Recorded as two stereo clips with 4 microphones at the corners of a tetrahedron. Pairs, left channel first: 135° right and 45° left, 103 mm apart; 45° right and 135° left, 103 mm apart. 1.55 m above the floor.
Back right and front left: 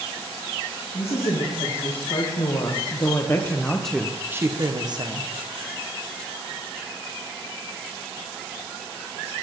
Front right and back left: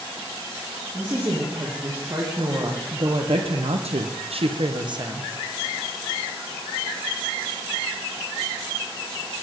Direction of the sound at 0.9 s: 155° right.